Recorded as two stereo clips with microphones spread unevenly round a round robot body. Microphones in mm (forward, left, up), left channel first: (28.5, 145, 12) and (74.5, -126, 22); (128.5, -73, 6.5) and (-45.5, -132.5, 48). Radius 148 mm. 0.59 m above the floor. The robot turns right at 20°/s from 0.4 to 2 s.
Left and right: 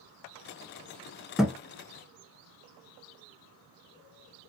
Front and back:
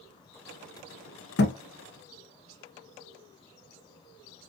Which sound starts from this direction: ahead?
A thud, at 1.4 s.